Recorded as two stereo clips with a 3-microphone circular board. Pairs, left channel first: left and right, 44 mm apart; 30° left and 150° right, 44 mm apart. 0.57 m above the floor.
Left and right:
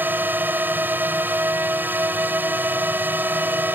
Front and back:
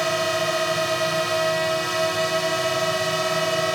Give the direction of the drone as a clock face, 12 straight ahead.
2 o'clock.